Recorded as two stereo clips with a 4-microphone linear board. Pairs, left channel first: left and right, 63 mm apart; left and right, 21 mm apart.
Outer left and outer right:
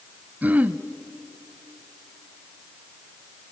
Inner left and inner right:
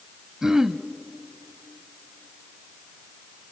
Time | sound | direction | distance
0.4 | throat clearing | 25° right (ahead or behind) | 0.7 m